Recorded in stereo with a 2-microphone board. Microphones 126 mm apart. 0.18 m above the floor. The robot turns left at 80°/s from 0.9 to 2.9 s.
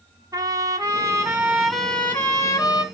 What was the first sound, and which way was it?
A trumpet, 110° right.